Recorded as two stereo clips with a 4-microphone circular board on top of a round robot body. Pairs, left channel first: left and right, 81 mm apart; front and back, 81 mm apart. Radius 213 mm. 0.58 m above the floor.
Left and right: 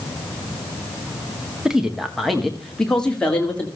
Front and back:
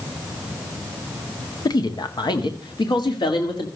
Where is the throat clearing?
I don't hear throat clearing.